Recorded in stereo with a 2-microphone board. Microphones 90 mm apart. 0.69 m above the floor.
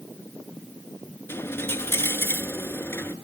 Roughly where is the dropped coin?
Left.